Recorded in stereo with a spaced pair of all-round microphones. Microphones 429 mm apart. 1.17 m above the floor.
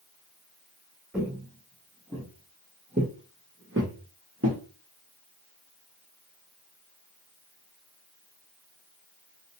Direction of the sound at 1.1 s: 5° right (ahead or behind).